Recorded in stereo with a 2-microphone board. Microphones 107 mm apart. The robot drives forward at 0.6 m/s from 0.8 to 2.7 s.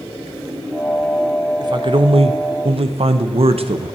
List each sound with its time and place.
1.6 s a man speaking: 40° right (ahead or behind), 0.7 m; by 4.0 s 65° right (ahead or behind), 0.5 m